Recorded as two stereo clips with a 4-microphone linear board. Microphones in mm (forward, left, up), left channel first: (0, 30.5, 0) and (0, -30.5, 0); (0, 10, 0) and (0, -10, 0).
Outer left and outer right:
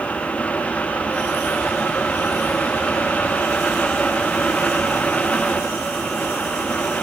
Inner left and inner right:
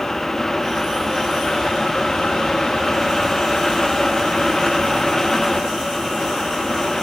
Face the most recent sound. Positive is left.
No sound to turn to.